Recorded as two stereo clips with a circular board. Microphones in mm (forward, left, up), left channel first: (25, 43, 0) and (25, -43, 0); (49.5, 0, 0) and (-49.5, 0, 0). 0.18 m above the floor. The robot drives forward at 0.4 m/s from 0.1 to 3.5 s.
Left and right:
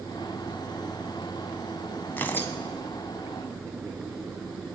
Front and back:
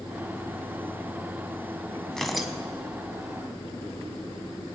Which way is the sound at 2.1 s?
75° left.